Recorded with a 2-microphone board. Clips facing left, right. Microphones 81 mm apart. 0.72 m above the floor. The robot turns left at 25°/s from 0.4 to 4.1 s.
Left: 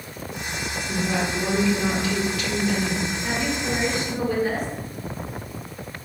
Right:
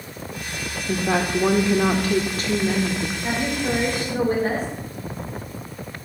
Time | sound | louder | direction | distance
0.9 | a woman speaking | right 4 dB | 95° right | 1.4 m
3.2 | a woman speaking | right 4 dB | 20° right (ahead or behind) | 4 m